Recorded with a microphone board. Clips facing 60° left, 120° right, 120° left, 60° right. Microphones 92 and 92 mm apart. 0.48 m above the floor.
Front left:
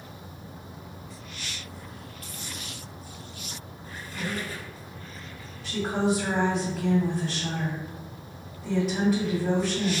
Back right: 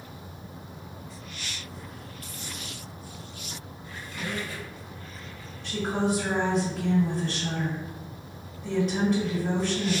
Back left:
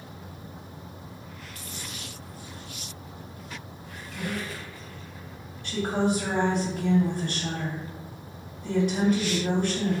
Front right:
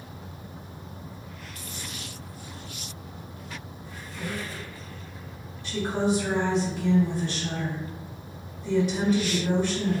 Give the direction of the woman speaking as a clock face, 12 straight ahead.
7 o'clock.